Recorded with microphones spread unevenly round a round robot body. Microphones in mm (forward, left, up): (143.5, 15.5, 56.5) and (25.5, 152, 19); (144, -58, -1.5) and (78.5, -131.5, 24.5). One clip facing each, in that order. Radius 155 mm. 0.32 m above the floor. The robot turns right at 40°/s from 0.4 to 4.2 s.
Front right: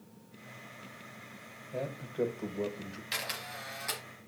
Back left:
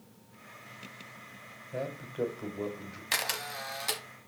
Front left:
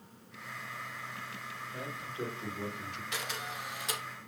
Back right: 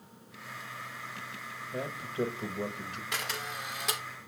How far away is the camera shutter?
About 0.9 m.